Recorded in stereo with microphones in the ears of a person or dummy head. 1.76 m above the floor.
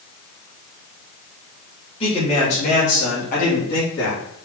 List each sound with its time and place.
2.0 s a man speaking: 30° left (ahead or behind), 3 m; by 4.2 s 60° left (ahead or behind), 4 m